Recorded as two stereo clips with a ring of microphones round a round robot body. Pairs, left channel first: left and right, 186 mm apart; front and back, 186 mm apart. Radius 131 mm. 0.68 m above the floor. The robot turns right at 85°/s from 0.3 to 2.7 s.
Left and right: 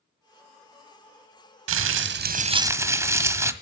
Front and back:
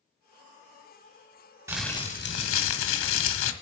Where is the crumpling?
100° right, 0.7 m; by 3.5 s 15° right, 0.7 m.